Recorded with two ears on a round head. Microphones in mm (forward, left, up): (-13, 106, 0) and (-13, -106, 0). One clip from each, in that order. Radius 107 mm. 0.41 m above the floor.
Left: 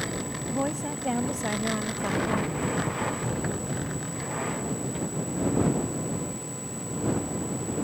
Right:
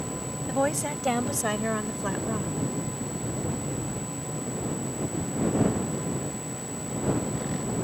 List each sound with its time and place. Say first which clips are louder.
0.5 s a woman speaking: right 5 dB; 55° right (ahead or behind); by 2.5 s 5° left (ahead or behind)